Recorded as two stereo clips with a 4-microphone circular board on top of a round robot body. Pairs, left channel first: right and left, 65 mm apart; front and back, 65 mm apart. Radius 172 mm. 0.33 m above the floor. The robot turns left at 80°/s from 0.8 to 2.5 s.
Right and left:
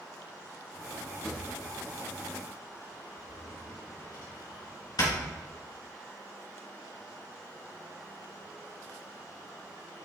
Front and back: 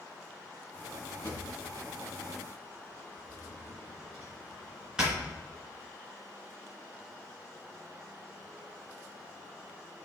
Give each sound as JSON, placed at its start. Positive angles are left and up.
{"t": 1.2, "sound": "a drawer", "azimuth_deg": 0, "distance_m": 3.5}